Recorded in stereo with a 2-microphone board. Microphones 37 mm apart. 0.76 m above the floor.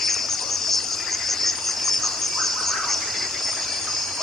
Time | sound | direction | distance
0.0 | an insect | 10° left (ahead or behind) | ?